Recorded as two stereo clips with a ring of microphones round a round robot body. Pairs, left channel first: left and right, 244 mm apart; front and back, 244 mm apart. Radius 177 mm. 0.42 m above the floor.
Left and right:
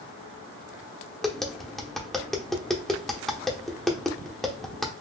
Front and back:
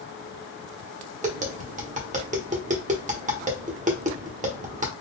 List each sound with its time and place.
1.2 s tapping: 175° left, 1.0 m